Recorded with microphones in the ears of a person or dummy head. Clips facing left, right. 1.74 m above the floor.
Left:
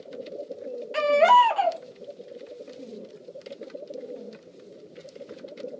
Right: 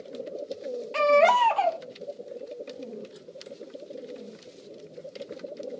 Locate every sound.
0.9 s a baby crying: 10° left (ahead or behind), 0.6 m